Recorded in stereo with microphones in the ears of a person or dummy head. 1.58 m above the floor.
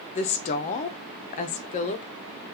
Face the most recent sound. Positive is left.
turn(degrees=40)  # may be behind; listen again after turning